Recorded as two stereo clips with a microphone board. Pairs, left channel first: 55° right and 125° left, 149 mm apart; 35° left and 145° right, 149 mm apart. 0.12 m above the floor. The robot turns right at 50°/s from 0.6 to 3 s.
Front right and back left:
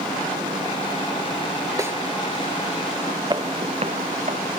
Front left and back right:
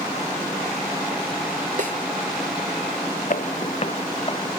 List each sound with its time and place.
1.8 s a snare drum: 170° right; by 2.0 s 160° right
3.3 s footsteps: 65° left; by 4.6 s 90° left